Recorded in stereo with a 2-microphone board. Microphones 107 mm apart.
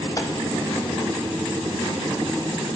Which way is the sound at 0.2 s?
35° left (ahead or behind).